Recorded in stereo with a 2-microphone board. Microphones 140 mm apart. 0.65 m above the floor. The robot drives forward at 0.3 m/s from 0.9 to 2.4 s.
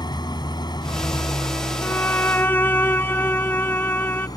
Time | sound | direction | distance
0.0 | an engine running | 30° left (ahead or behind) | ?
1.8 | a violin | 15° left (ahead or behind) | ?